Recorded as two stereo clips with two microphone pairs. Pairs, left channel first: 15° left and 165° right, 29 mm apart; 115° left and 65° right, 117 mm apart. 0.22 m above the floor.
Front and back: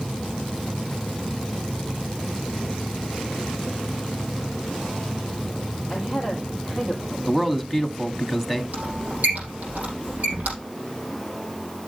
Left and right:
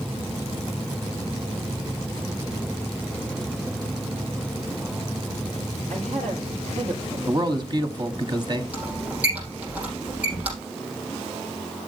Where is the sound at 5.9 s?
85° right, 6 m.